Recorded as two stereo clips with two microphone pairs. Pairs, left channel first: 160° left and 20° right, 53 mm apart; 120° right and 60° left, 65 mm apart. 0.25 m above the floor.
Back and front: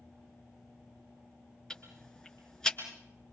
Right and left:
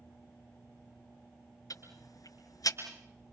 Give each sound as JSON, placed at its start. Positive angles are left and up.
{"t": 1.7, "sound": "ticking", "azimuth_deg": -125, "distance_m": 4.5}